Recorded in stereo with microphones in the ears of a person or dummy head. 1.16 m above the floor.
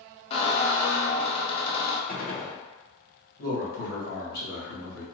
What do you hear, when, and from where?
0.3 s a squeak: 30° left (ahead or behind), 0.5 m
2.1 s a gunshot: 40° left (ahead or behind), 0.6 m
3.4 s a man speaking: 55° left (ahead or behind), 1.4 m